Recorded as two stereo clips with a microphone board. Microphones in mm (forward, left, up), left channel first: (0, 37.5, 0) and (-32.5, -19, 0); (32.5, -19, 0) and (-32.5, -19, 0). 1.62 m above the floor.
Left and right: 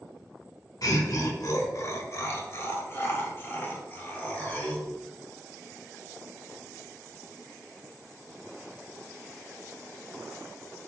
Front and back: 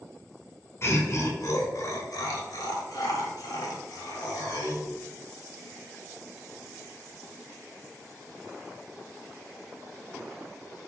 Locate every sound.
0.8 s laughter: 45° left, 1.8 m; by 4.9 s 5° right, 3.5 m